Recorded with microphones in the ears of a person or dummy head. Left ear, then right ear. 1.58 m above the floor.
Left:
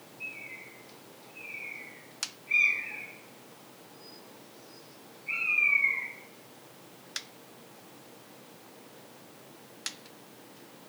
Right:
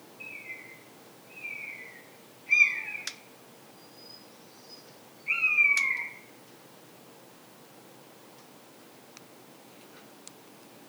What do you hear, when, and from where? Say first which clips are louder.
0.2 s a bird: left 1 dB; 65° right (ahead or behind), 2.5 m